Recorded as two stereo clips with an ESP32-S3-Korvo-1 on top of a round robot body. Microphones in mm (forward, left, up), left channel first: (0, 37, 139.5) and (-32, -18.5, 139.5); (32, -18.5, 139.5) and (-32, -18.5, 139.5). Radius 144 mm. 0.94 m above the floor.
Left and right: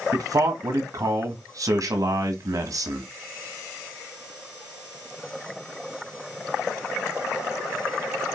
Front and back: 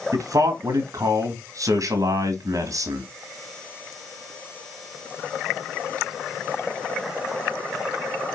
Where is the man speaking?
150° right, 1.8 m.